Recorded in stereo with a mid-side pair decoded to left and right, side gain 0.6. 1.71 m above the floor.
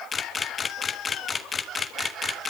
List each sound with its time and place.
0.1 s a camera shutter: 30° left, 1.5 m